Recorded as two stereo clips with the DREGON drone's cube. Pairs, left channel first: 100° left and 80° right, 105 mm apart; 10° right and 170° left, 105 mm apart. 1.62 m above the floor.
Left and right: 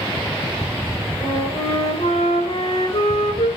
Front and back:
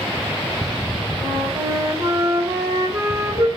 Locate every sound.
1.2 s a flute: 110° left, 4 m